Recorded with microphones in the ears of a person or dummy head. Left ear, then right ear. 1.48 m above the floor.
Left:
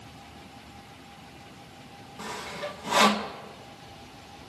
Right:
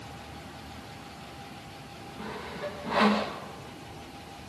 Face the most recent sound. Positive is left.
turn(degrees=80)